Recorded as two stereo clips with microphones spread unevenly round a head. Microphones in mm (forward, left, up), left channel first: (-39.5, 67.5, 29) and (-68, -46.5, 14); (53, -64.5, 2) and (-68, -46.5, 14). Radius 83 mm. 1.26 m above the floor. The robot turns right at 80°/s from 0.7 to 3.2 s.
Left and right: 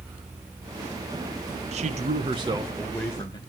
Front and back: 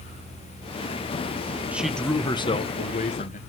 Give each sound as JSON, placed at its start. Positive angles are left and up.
{"t": 1.7, "sound": "a man speaking", "azimuth_deg": -110, "distance_m": 1.1}